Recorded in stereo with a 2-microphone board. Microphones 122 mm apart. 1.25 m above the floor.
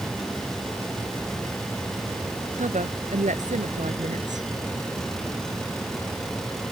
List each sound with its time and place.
2.6 s a woman speaking: 85° right